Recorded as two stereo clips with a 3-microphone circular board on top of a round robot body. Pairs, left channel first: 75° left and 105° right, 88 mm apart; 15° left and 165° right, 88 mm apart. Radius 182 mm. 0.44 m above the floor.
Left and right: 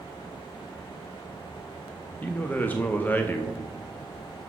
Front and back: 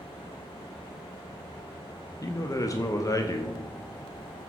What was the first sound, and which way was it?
A man speaking, 15° left.